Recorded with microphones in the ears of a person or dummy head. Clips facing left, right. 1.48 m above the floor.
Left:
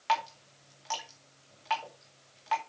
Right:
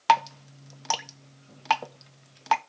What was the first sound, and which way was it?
Dripping, 60° right (ahead or behind).